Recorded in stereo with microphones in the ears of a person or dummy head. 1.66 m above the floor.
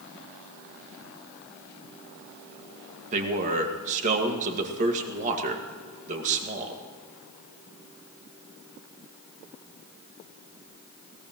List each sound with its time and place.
3.1 s a man speaking: 40° right (ahead or behind), 1.9 m